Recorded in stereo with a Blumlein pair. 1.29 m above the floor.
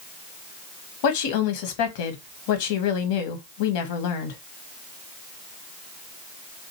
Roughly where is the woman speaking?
Ahead left.